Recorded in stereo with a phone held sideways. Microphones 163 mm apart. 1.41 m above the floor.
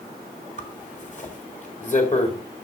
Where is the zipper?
50° left (ahead or behind), 1.8 m.